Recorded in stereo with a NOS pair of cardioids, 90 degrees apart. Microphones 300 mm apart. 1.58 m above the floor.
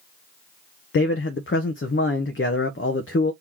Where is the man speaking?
40° left, 0.9 m.